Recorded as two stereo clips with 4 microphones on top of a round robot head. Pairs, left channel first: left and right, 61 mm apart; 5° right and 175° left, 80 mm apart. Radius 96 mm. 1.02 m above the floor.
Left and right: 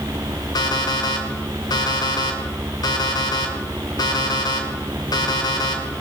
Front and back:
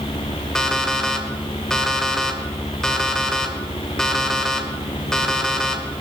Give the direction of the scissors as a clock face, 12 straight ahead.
I don't hear scissors.